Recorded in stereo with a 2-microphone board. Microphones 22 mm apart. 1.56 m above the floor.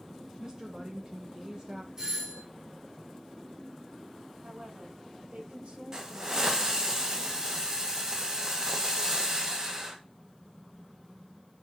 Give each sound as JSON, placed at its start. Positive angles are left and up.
{"t": 0.4, "sound": "a woman speaking", "side_deg": -35, "distance_m": 1.1}
{"t": 2.0, "sound": "a doorbell", "side_deg": -25, "distance_m": 3.5}
{"t": 4.4, "sound": "a woman speaking", "side_deg": -80, "distance_m": 2.5}
{"t": 5.9, "sound": "a hiss", "side_deg": -25, "distance_m": 1.9}